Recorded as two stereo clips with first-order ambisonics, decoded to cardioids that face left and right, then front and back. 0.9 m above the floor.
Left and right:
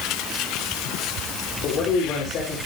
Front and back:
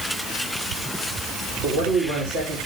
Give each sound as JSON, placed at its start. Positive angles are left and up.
{"t": 1.6, "sound": "a man speaking", "azimuth_deg": 135, "distance_m": 2.5}